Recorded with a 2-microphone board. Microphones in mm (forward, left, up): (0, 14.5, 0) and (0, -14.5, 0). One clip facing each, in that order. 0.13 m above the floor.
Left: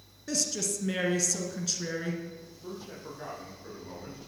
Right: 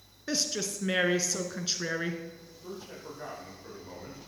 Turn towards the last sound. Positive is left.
turn(degrees=0)  # may be behind; listen again after turning